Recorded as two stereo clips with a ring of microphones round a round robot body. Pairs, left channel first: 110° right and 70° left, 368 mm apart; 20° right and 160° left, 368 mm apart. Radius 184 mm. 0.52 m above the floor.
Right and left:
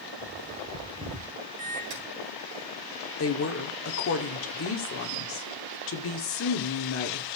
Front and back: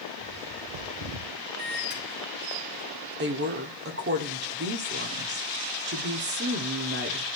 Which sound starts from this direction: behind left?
A bird, at 0.2 s.